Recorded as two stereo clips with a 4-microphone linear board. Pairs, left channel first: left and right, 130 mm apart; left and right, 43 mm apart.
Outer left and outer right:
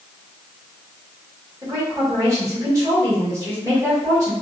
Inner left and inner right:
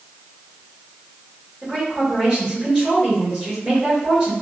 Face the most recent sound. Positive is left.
turn(degrees=-25)  # may be behind; listen again after turning